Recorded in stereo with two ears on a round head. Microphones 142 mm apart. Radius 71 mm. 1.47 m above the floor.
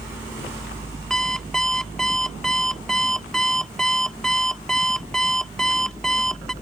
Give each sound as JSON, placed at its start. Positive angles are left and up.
{"t": 1.1, "sound": "an alarm clock", "side_deg": 5}